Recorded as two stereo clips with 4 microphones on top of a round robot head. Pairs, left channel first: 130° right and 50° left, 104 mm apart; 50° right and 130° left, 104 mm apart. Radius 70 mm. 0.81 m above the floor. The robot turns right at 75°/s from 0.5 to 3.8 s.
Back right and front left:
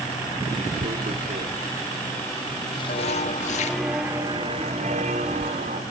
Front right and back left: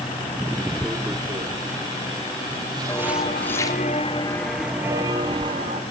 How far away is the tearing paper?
About 1.0 m.